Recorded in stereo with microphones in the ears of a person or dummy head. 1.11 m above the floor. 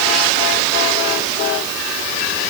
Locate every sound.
Only background noise.